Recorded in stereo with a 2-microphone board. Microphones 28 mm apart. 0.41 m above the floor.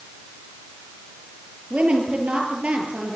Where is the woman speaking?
45° right (ahead or behind), 8 m.